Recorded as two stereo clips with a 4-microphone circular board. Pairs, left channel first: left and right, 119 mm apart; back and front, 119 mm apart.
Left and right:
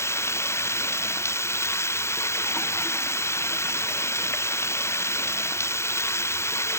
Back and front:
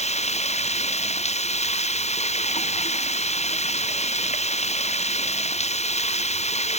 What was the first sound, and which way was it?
Running water, 160° left.